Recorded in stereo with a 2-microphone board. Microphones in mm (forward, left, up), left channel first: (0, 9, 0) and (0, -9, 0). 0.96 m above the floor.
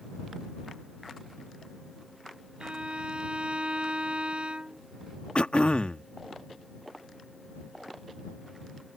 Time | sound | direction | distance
2.6 | a violin | 70° right (ahead or behind) | ?
5.3 | throat clearing | 75° left (ahead or behind) | ?